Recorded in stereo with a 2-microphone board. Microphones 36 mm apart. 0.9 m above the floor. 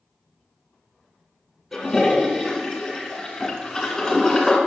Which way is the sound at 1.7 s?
10° left (ahead or behind).